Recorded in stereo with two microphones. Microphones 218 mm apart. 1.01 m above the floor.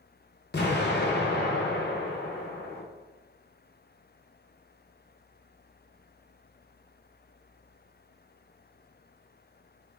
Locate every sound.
0.5 s an explosion: 50° left (ahead or behind), 0.5 m